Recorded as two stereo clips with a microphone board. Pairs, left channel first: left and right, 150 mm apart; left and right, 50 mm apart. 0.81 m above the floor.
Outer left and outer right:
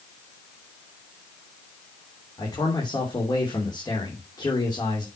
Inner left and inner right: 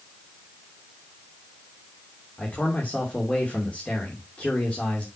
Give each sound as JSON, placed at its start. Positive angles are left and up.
{"t": 2.4, "sound": "a man speaking", "side_deg": 25, "distance_m": 3.0}